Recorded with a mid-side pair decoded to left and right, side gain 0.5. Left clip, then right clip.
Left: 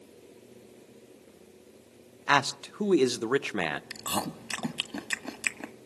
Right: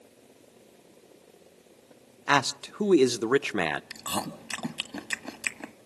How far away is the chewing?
About 1.5 m.